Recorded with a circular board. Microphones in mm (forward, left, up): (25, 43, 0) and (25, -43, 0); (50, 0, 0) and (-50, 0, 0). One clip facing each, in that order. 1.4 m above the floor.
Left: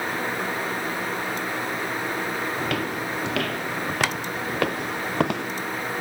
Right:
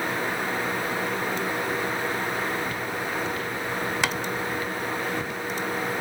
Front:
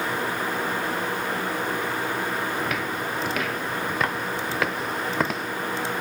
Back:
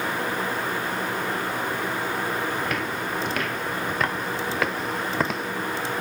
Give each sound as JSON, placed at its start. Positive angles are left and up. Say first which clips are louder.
{"t": 2.6, "sound": "footsteps", "louder": "left 2 dB, even", "azimuth_deg": 90}